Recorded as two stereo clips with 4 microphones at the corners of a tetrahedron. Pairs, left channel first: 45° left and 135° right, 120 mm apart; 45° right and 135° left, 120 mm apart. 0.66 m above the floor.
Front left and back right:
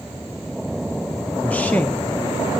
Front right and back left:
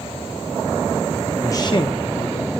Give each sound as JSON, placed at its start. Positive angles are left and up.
{"t": 1.4, "sound": "a man speaking", "azimuth_deg": -20, "distance_m": 0.6}